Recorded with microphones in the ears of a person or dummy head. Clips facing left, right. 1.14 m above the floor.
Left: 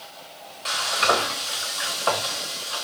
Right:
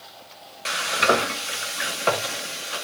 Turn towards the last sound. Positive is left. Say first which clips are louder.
# right 2 dB
turn(degrees=-30)  # may be behind; listen again after turning